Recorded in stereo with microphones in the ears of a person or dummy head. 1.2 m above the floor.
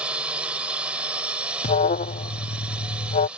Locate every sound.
0.0 s a drone: 10° right (ahead or behind)
1.6 s an alarm: 35° left (ahead or behind)